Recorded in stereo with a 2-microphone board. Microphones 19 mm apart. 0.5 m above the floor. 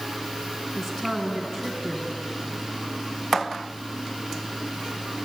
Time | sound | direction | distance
0.8 | a woman speaking | 10° left (ahead or behind) | 4 m